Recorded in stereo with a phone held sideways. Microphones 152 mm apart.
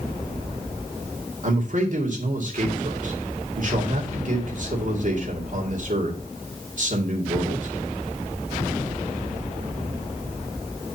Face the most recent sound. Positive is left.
turn(degrees=-55)  # may be behind; listen again after turning